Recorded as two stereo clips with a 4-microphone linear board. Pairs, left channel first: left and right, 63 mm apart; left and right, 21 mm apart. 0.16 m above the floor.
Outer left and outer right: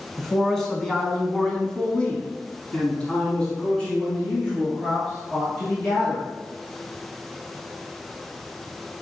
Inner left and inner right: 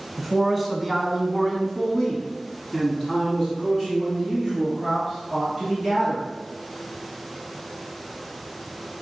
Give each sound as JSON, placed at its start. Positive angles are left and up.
{"t": 0.2, "sound": "a man speaking", "side_deg": 5, "distance_m": 1.6}